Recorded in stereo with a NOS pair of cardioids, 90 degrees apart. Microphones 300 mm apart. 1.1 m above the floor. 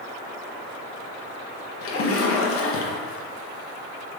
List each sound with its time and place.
1.8 s a splash: 50° left, 0.6 m